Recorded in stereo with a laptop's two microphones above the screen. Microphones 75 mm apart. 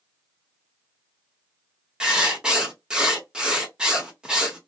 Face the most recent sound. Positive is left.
turn(degrees=-10)  # may be behind; listen again after turning